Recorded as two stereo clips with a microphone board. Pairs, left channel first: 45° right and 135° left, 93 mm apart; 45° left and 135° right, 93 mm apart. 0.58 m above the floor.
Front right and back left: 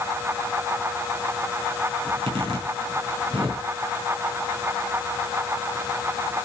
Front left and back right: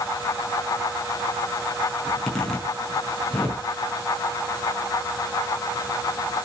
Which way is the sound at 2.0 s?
130° left.